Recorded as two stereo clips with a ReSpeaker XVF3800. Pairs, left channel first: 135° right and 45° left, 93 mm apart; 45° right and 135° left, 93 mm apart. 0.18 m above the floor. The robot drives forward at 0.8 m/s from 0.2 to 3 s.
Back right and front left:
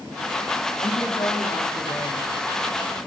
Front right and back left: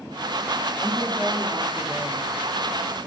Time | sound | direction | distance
0.8 | a woman speaking | 145° right | 10 m